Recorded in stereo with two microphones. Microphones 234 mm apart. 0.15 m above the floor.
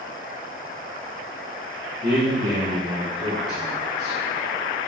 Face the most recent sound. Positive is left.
turn(degrees=-40)  # may be behind; listen again after turning